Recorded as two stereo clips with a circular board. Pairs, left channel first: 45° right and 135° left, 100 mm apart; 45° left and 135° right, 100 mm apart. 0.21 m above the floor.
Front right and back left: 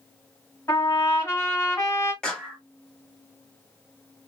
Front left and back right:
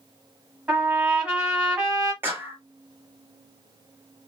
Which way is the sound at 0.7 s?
70° right.